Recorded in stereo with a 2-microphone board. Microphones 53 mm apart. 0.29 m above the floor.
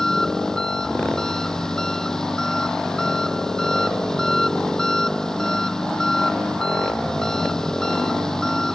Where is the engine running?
10° left (ahead or behind).